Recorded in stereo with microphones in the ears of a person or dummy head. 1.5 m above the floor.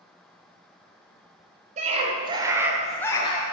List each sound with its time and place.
1.8 s a scream: 35° right (ahead or behind), 1.2 m; by 3.4 s 35° left (ahead or behind), 0.7 m